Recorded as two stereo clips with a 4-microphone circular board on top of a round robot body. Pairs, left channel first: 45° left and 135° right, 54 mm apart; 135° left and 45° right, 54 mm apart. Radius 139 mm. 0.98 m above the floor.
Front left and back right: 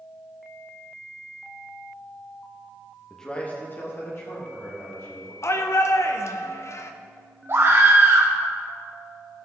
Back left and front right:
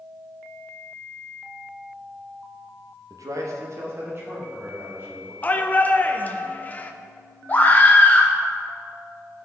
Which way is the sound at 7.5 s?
170° right.